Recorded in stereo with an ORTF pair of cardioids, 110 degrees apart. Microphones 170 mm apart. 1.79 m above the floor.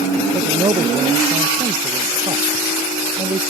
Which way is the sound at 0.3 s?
30° right.